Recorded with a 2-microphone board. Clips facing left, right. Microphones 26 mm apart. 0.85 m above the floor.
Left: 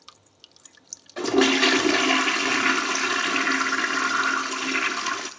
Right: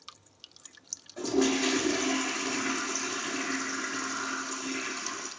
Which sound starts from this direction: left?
A toilet flushing, at 1.2 s.